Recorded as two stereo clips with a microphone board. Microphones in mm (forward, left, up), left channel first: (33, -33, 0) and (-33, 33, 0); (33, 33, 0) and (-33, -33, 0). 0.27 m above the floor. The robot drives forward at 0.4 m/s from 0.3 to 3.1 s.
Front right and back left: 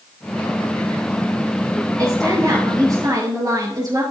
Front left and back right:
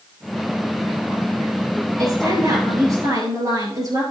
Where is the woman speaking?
Straight behind, 5 m.